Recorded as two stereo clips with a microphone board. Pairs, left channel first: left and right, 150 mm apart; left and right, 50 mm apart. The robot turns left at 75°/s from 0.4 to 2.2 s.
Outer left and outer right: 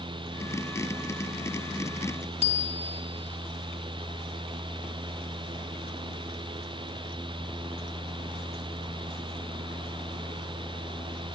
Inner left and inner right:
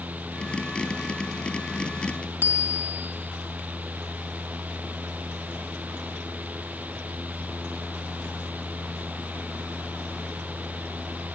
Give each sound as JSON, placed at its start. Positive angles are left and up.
{"t": 2.4, "sound": "a bicycle bell", "side_deg": -45, "distance_m": 2.5}